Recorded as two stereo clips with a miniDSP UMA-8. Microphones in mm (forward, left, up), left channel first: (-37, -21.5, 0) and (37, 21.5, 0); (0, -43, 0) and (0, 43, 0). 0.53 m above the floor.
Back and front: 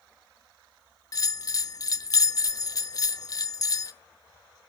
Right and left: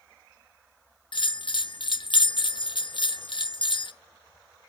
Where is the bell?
105° right, 0.5 m.